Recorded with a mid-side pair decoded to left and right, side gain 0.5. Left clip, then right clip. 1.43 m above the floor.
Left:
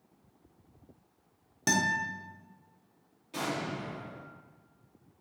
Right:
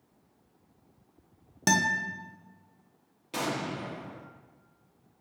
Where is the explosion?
55° right, 0.7 m.